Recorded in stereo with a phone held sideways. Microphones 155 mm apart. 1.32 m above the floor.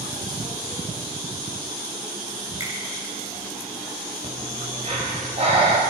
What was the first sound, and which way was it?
A finger snap, 20° right (ahead or behind).